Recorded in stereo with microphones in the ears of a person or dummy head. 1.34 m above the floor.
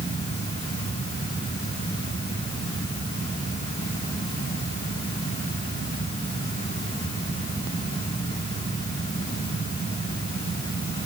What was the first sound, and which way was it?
Only background noise.